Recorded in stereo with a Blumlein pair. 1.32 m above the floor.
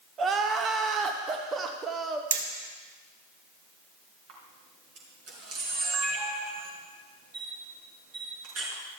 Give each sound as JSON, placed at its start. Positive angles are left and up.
{"t": 0.2, "sound": "crying", "azimuth_deg": -20, "distance_m": 1.1}
{"t": 2.3, "sound": "hammering", "azimuth_deg": -65, "distance_m": 1.4}
{"t": 4.3, "sound": "a camera shutter", "azimuth_deg": -40, "distance_m": 4.0}